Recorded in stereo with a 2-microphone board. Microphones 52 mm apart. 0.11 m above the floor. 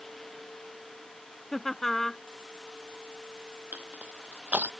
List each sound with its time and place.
1.5 s laughter: 5° left (ahead or behind)
3.7 s crushing: 30° right (ahead or behind)